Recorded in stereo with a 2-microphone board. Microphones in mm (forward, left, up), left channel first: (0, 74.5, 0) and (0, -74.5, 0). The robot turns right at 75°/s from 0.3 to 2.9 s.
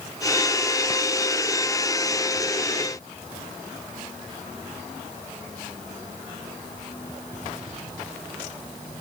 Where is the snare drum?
I don't hear a snare drum.